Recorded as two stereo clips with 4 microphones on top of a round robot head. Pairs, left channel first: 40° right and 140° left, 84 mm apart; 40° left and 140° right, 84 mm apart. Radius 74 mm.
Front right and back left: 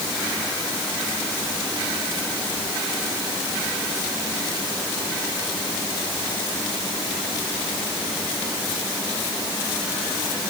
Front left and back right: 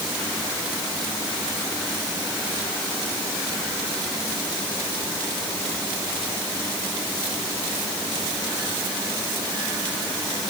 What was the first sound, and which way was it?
Only background noise.